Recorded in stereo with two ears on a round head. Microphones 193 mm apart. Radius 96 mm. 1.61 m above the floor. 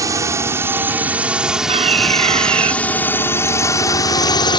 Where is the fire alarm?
30° right (ahead or behind).